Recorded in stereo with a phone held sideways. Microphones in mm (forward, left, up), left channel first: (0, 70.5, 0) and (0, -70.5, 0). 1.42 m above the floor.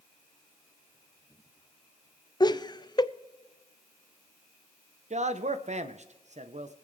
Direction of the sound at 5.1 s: 55° right (ahead or behind).